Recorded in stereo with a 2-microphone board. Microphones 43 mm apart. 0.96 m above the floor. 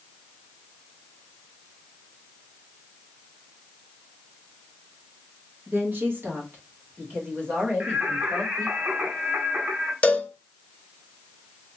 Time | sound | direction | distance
5.7 | a woman speaking | 45° right (ahead or behind) | 1.3 m
7.8 | singing | 40° right (ahead or behind) | 1.7 m
10.0 | a cowbell | 30° left (ahead or behind) | 0.8 m